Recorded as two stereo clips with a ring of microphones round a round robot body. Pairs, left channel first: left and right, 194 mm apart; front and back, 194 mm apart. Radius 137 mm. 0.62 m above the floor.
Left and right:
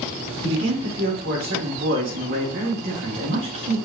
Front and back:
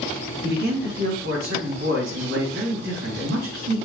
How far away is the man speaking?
About 4.5 m.